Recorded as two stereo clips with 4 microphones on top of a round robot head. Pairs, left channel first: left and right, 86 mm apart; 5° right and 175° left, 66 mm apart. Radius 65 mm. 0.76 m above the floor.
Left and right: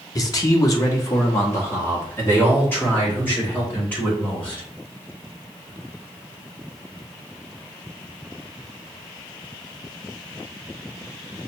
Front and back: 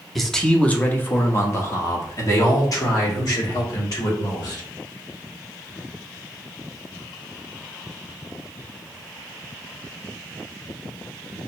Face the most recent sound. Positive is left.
turn(degrees=15)